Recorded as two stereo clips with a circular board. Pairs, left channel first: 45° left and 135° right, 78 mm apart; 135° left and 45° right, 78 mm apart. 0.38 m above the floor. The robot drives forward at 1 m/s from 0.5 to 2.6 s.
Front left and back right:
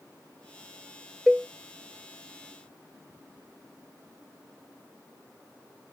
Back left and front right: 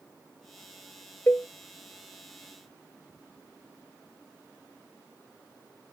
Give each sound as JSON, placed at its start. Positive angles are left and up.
{"t": 1.3, "sound": "a cowbell", "azimuth_deg": 140}